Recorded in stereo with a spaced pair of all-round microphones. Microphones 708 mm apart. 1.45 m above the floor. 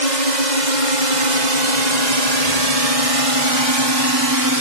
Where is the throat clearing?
No throat clearing in this recording.